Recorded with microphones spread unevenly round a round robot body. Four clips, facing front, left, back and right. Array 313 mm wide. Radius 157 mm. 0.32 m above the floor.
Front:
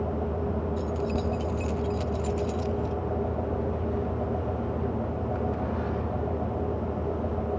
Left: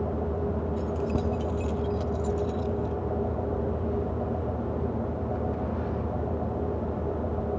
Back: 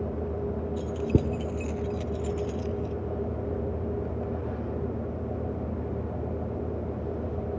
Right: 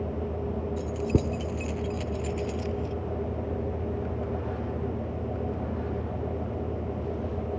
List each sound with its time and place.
0.8 s keys jangling: 150° right; by 3.0 s 120° right